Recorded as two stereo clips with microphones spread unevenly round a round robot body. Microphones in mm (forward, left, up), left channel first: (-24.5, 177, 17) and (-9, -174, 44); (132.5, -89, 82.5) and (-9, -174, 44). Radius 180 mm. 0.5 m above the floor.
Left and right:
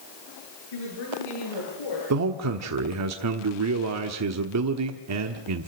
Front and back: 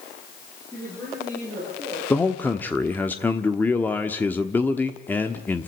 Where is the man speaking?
60° right, 1.3 m.